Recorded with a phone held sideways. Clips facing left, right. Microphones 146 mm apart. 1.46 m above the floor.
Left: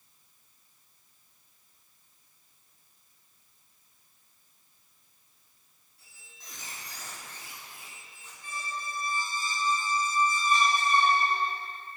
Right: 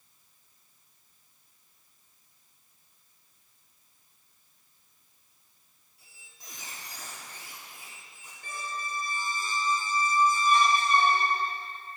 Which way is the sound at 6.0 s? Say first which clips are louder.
Even; 10° right (ahead or behind).